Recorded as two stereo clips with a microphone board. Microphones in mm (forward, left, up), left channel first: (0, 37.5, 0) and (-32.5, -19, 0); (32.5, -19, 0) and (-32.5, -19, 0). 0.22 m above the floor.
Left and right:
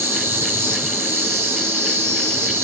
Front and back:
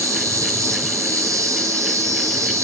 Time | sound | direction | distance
0.0 | an insect | 160° right | 1.5 m